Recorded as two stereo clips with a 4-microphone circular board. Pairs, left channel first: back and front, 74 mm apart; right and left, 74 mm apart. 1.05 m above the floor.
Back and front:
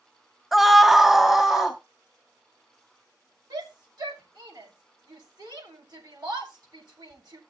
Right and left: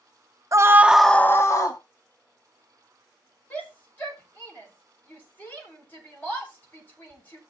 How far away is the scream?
About 0.8 m.